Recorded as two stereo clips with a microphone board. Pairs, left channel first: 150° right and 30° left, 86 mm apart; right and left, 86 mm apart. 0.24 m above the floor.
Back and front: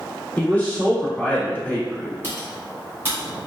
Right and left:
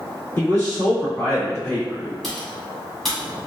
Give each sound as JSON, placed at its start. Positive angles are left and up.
{"t": 0.4, "sound": "a man speaking", "azimuth_deg": -100, "distance_m": 1.1}
{"t": 2.2, "sound": "typing on a keyboard", "azimuth_deg": -5, "distance_m": 1.6}